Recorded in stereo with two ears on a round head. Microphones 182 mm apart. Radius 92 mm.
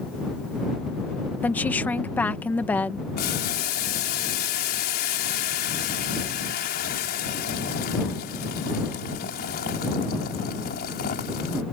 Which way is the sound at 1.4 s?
10° left (ahead or behind).